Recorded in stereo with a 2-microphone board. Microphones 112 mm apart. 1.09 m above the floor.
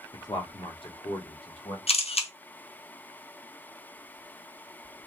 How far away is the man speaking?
About 0.8 m.